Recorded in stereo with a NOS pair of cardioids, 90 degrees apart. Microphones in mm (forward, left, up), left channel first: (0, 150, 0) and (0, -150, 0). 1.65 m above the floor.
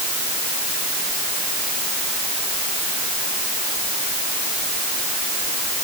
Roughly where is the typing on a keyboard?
I don't hear typing on a keyboard.